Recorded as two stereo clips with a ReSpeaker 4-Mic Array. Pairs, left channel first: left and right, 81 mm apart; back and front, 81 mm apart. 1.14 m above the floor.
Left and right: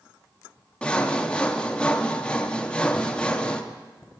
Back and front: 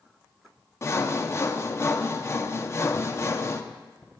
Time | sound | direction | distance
0.8 | sawing | 160° left | 0.6 m